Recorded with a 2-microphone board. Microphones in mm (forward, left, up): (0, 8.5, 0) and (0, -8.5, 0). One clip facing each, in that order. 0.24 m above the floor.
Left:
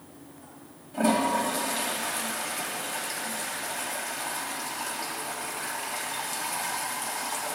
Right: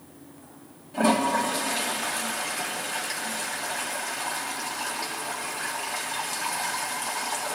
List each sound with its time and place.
0.9 s a toilet flushing: 10° right (ahead or behind), 1.6 m